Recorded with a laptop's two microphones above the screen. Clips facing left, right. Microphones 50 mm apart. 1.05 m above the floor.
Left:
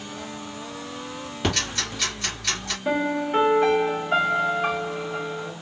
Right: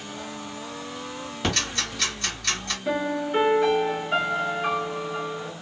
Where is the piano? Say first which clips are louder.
Left 2 dB; 25° left (ahead or behind), 1.2 m.